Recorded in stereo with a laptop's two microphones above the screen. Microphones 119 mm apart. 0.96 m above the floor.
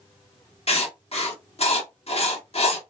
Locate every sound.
0.7 s writing: 60° left (ahead or behind), 1.1 m